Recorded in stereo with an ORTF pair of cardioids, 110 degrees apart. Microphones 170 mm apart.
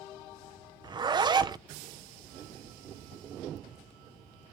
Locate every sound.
0.8 s a zipper: 25° right, 0.6 m